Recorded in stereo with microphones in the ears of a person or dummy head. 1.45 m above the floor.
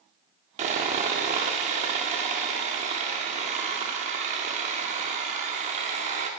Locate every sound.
0.6 s sawing: 40° right (ahead or behind), 0.7 m